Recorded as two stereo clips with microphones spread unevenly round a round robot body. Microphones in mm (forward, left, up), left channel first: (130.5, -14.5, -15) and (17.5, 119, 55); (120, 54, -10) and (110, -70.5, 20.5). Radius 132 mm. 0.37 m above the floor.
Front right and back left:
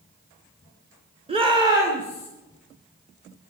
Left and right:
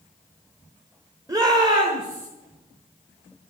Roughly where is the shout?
Behind.